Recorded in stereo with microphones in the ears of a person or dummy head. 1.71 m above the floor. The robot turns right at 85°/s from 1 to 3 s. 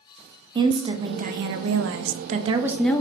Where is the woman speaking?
150° right, 0.6 m; by 3.0 s 20° left, 0.6 m.